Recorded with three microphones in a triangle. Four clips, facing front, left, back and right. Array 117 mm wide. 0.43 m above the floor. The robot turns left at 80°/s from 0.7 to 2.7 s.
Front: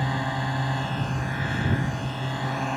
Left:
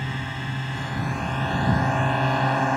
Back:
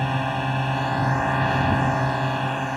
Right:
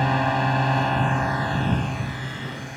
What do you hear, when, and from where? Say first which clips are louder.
0.0 s a drone: right 11 dB, back 3 dB; 110° right; by 2.8 s 90° left